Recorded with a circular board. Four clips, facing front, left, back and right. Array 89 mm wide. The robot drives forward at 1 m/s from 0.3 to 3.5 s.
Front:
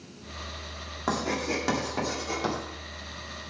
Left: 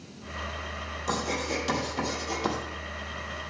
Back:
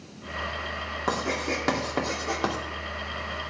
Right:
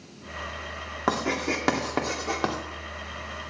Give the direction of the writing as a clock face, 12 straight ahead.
3 o'clock.